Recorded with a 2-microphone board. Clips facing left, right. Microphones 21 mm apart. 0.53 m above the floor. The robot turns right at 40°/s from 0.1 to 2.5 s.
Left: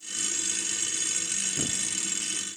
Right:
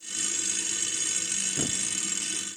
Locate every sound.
1.6 s a thud: 15° right (ahead or behind), 0.7 m; by 1.9 s 25° right (ahead or behind), 0.7 m